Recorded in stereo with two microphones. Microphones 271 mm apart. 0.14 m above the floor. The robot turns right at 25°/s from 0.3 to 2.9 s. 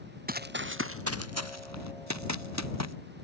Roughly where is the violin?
I don't hear a violin.